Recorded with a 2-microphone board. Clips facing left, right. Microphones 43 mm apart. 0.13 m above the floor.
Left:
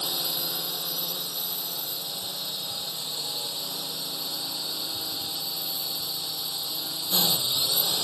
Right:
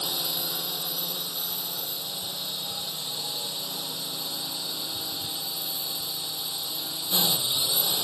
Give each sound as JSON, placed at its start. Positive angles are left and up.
{"t": 0.0, "sound": "a drone", "side_deg": -10}